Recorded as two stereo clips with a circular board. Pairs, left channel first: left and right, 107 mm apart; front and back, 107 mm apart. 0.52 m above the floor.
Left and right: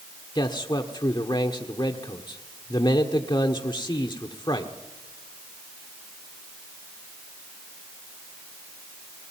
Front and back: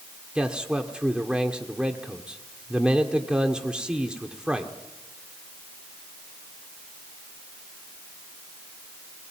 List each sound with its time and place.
0.3 s a man speaking: 100° left, 1.5 m